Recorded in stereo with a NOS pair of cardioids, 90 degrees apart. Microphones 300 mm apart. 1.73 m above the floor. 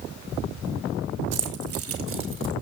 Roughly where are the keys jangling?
Ahead right.